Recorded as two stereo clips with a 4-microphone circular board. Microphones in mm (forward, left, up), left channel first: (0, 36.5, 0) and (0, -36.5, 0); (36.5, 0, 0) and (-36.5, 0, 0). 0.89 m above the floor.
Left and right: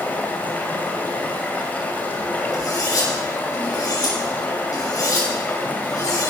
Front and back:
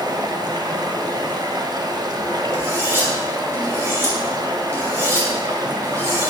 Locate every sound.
0.0 s running water: 155° left, 2.5 m
2.5 s cutlery clinking: 125° left, 5.5 m